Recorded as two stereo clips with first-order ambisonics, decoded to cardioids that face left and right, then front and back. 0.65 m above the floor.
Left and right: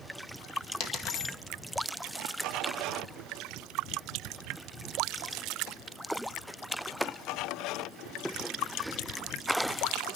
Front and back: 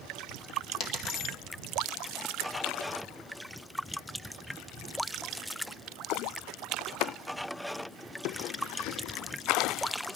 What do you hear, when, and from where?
0.8 s a dropped coin: 55° left, 1.9 m